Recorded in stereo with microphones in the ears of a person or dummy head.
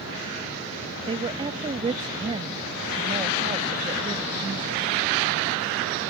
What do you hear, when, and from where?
1.1 s a woman speaking: 30° right (ahead or behind)